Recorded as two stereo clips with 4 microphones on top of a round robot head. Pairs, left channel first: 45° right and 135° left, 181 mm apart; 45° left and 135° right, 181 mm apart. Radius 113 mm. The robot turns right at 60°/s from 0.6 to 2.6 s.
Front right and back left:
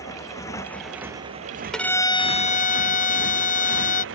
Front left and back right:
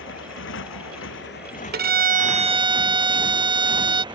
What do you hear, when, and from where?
0.0 s a motorcycle: 30° left; by 4.1 s 155° left
1.7 s a violin: 130° right; by 4.0 s 80° right